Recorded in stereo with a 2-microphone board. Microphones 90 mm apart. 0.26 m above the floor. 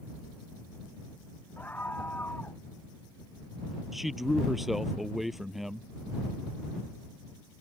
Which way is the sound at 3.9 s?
Centre (ahead or behind).